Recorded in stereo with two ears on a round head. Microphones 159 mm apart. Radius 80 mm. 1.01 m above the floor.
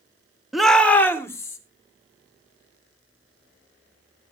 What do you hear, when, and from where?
0.5 s a shout: centre (ahead or behind), 1.0 m; by 1.6 s 20° left (ahead or behind), 2.5 m